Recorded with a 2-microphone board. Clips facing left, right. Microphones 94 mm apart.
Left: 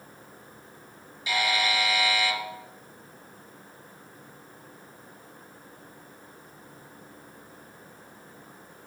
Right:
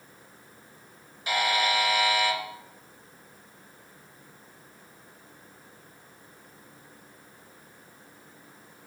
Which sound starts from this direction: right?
A buzzer, at 1.3 s.